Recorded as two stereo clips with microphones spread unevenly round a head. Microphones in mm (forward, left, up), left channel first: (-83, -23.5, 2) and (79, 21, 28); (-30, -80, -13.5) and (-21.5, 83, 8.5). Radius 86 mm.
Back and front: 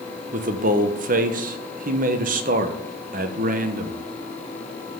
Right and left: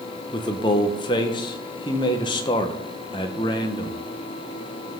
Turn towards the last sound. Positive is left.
turn(degrees=-25)